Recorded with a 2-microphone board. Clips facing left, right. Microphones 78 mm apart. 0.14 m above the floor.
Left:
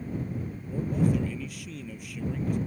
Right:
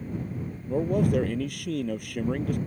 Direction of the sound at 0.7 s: 60° right (ahead or behind).